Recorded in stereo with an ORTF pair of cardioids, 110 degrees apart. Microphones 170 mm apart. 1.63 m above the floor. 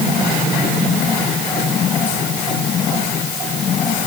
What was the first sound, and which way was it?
Only background noise.